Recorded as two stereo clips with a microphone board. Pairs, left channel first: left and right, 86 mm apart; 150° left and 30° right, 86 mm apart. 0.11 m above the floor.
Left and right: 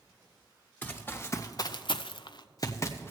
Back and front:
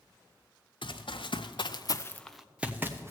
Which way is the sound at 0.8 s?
160° left.